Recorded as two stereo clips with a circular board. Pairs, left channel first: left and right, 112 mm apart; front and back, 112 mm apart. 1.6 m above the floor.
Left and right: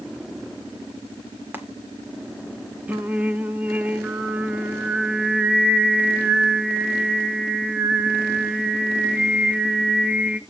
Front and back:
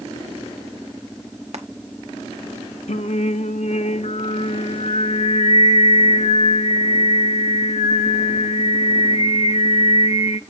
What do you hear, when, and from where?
1.5 s frying: 160° right, 1.7 m
2.9 s singing: 10° right, 0.8 m